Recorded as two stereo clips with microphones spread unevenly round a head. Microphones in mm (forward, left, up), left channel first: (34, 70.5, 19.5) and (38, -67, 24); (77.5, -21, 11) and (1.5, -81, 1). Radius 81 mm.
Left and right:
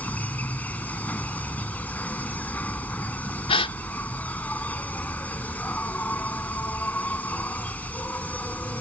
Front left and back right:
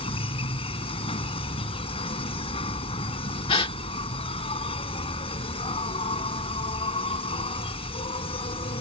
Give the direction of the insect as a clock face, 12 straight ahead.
12 o'clock.